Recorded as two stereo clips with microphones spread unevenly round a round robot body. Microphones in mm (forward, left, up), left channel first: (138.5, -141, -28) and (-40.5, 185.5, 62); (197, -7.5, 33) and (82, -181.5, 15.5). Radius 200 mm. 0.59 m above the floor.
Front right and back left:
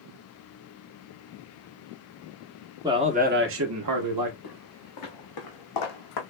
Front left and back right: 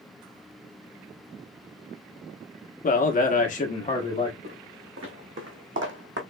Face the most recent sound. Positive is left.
turn(degrees=-100)